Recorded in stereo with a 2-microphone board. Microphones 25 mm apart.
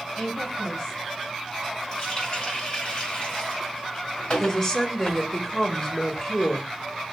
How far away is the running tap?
About 2.0 m.